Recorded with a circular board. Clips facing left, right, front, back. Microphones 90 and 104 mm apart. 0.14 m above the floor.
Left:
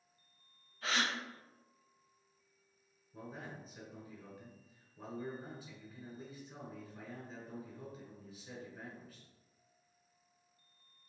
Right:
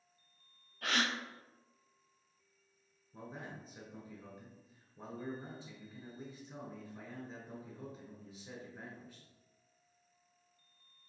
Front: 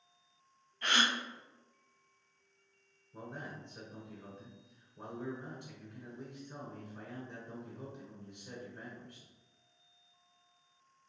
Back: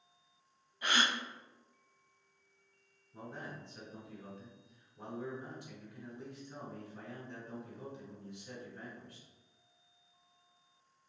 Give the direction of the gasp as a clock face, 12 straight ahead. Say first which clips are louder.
Right 1 dB, even; 3 o'clock.